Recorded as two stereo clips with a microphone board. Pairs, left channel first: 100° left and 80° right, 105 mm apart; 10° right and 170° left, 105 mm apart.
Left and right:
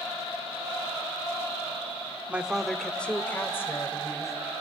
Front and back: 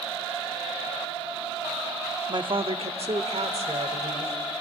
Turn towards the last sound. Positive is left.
turn(degrees=160)